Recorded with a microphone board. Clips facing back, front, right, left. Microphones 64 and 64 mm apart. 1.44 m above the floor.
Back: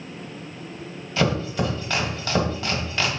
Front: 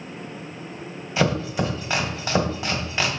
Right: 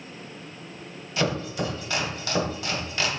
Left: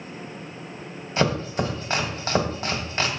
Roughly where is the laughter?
No laughter in this recording.